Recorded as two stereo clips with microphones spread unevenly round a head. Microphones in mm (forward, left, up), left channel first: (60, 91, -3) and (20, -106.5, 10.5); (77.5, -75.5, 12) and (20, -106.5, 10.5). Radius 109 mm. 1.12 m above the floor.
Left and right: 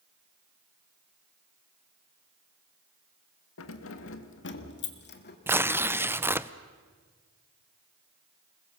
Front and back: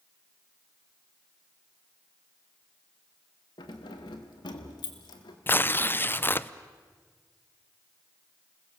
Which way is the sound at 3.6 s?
65° left.